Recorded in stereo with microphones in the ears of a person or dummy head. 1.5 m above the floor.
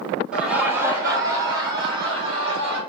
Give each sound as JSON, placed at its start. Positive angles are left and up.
{"t": 0.3, "sound": "laughter", "side_deg": -10, "distance_m": 1.5}